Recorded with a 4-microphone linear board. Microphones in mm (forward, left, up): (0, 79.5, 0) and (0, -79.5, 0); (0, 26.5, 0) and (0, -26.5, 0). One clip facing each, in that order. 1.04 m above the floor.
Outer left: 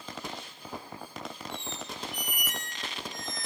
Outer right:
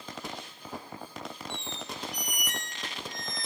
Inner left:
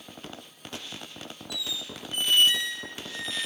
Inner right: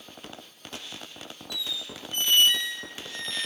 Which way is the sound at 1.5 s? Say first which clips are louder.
Even, inner right 1 dB; 5° left (ahead or behind).